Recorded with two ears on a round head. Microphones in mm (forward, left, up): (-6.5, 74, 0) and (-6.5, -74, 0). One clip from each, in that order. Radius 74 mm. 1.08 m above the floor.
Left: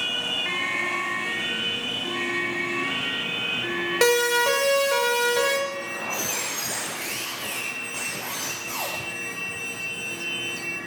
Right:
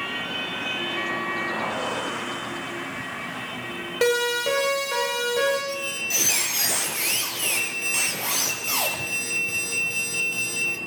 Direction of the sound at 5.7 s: 75° right (ahead or behind).